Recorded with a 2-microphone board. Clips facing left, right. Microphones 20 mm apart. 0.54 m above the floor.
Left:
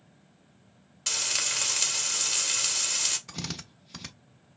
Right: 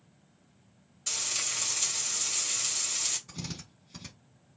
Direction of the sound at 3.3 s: 45° left (ahead or behind).